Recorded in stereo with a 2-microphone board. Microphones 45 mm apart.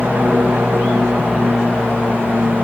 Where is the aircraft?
50° right (ahead or behind).